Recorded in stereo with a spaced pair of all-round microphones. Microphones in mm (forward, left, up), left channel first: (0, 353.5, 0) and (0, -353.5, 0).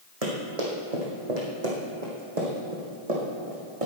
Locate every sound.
0.2 s running footsteps: 55° right (ahead or behind), 3 m; by 3.9 s 50° right (ahead or behind), 4 m